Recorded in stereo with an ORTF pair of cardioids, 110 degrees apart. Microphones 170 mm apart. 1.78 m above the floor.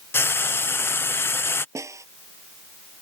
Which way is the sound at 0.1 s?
15° left.